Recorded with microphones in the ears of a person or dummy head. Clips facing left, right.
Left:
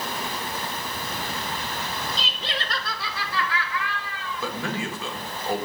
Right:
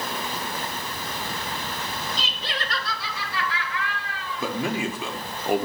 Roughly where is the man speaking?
Right.